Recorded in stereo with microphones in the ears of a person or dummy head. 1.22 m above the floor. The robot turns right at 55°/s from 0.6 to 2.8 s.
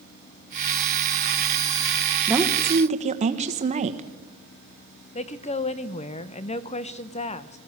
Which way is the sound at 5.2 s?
35° left (ahead or behind).